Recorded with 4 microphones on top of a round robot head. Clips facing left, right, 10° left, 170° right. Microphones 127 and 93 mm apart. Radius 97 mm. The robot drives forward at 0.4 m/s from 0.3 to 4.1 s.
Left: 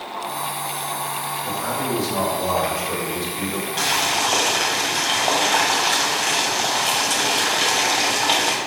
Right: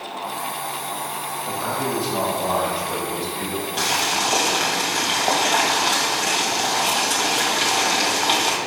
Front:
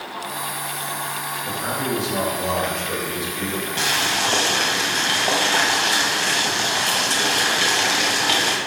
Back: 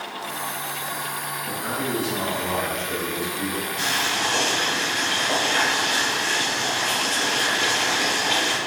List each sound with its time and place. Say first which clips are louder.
1.4 s a man speaking: right 1 dB, front 3 dB; 20° left, 3.5 m; by 3.7 s 25° left, 2.5 m
3.8 s boiling: left 1 dB, front 3 dB; straight ahead, 2 m